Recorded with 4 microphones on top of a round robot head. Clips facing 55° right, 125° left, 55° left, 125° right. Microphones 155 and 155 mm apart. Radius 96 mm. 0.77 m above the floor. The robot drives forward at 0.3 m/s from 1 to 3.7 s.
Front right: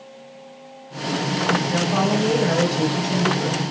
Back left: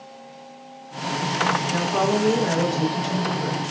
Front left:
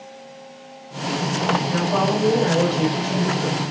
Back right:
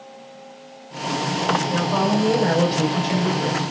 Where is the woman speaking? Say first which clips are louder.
Back left 1 dB, back right 1 dB; 45° right, 4.5 m; by 3.7 s 55° right, 4 m.